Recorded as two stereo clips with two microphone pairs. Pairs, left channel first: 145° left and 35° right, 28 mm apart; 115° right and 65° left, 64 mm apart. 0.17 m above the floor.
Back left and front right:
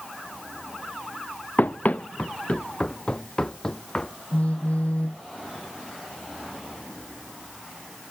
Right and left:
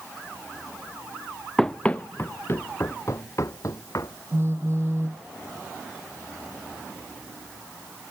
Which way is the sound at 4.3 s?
110° left.